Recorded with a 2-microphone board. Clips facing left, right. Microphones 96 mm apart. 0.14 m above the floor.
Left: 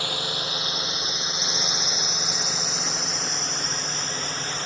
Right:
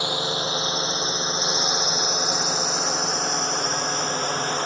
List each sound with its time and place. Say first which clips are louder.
0.0 s a drone: right 5 dB; 20° right (ahead or behind); by 4.7 s 45° right (ahead or behind)